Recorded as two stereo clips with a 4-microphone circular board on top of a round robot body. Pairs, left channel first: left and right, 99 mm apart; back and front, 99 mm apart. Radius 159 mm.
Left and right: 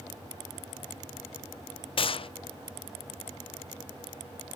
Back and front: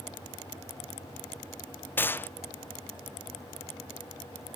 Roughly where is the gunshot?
Left.